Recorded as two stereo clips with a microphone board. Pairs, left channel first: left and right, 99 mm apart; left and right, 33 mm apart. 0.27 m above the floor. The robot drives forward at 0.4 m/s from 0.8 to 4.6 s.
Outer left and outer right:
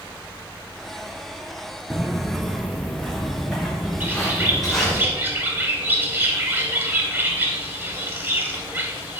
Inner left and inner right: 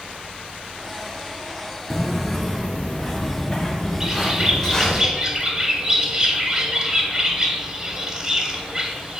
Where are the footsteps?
5° right (ahead or behind), 0.7 m; by 5.0 s 5° left (ahead or behind), 3.5 m.